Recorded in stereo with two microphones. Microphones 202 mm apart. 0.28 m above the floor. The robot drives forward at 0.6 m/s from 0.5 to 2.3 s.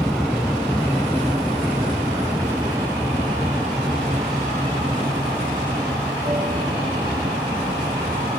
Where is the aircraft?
Centre (ahead or behind); by 8.4 s 25° right (ahead or behind).